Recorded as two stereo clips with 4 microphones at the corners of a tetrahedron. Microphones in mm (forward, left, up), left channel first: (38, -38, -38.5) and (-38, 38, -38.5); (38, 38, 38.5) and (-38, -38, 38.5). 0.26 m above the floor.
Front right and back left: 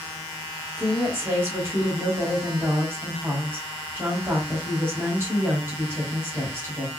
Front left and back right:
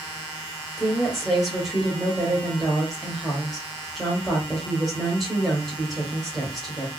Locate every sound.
0.8 s a woman speaking: 135° left, 1.4 m